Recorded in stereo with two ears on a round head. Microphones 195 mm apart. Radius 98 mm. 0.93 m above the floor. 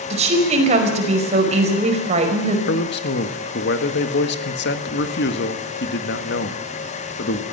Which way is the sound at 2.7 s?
55° left (ahead or behind).